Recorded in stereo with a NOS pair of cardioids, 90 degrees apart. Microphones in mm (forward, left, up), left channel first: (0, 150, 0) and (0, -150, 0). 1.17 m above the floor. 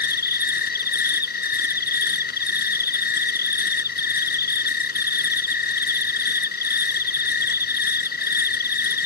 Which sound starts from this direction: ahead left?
An insect, at 0.0 s.